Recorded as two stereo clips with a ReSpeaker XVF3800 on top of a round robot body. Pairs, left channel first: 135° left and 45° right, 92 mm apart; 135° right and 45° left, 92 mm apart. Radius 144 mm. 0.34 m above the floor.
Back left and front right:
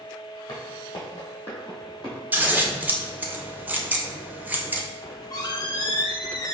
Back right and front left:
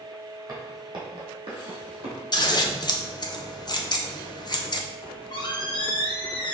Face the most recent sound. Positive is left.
turn(degrees=-175)